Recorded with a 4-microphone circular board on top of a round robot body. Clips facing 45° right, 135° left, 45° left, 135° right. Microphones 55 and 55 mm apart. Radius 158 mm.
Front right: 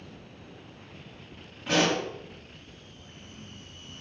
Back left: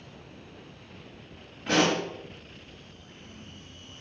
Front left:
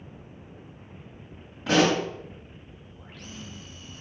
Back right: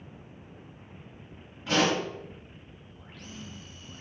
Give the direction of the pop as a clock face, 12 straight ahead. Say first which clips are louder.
Back left 1 dB, front left 4 dB; 11 o'clock.